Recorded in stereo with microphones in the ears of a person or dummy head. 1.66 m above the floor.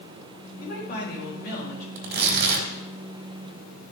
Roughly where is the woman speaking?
Left.